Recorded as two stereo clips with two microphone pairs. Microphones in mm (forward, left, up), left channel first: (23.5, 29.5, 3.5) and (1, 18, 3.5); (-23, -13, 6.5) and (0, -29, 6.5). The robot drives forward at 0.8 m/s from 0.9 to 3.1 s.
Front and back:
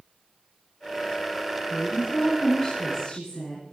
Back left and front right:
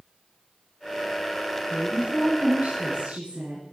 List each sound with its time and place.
1.7 s a woman speaking: 10° right, 4.5 m; by 3.6 s 15° right, 3.5 m